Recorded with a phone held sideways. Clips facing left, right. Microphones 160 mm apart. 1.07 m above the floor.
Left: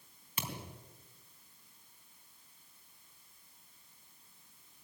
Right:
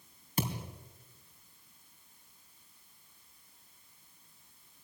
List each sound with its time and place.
0.4 s a thud: 40° right (ahead or behind), 3 m